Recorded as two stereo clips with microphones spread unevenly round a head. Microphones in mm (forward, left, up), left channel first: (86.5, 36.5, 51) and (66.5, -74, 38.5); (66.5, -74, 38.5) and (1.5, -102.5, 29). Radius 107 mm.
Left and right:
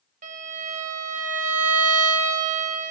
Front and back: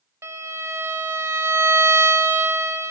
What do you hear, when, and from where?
0.2 s a violin: 105° right, 1.2 m